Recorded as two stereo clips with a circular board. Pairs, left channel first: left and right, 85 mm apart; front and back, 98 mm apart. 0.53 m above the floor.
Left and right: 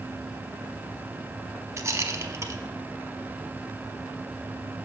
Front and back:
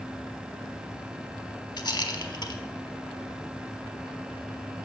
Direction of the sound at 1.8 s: 40° right.